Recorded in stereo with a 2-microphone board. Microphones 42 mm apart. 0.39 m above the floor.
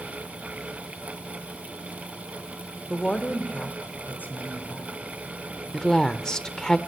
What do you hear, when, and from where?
2.9 s a woman speaking: 20° left (ahead or behind), 1.0 m; by 5.0 s 50° left (ahead or behind), 2.5 m
5.7 s a woman speaking: 15° left (ahead or behind), 0.8 m